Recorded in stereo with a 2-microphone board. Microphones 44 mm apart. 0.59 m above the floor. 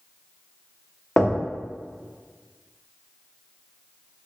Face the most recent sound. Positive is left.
turn(degrees=10)  # may be behind; listen again after turning